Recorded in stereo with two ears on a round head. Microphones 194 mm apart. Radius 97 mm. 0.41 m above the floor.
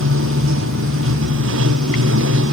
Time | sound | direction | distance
0.0 | running water | 70° right (ahead or behind) | ?